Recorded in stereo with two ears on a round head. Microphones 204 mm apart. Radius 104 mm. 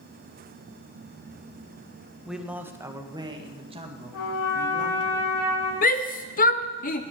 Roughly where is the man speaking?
Centre.